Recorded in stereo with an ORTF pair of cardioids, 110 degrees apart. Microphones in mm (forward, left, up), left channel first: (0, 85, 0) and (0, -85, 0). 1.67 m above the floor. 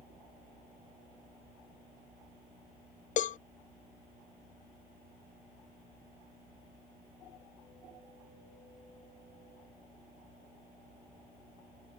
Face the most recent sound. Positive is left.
turn(degrees=50)